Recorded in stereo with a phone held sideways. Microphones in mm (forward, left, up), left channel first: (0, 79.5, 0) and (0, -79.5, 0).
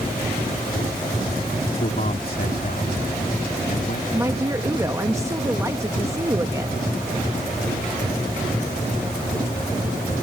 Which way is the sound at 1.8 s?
65° left (ahead or behind).